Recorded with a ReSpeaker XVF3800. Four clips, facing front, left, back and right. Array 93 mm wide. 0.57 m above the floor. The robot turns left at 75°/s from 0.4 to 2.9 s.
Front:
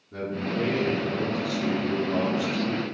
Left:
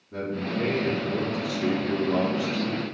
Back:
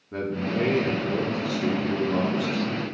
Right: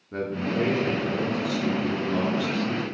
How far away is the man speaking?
About 1.0 m.